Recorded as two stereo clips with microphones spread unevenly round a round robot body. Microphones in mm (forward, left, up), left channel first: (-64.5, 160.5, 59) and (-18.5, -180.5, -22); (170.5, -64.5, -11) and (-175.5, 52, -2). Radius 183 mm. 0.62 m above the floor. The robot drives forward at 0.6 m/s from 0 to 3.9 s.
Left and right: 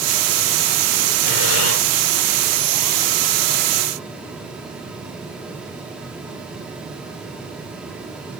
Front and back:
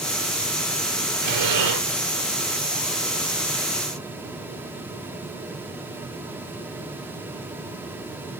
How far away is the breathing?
About 2.5 m.